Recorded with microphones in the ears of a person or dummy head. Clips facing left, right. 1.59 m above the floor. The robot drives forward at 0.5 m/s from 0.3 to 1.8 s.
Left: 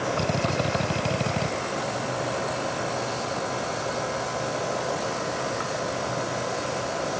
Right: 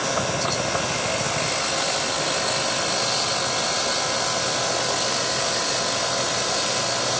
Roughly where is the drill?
Left.